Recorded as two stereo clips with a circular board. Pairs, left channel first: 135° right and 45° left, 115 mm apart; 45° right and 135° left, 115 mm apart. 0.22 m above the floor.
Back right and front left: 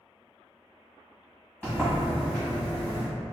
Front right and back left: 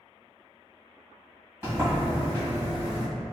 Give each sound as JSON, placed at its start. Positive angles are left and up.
{"t": 1.6, "sound": "a sliding door", "azimuth_deg": 165, "distance_m": 1.6}